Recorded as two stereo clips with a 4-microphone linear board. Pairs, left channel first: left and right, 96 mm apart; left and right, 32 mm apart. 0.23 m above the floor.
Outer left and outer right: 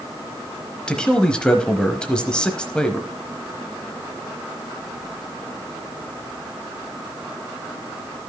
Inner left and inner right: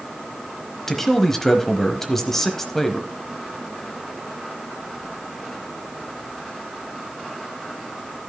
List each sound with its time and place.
0.9 s a man speaking: 10° left (ahead or behind), 1.0 m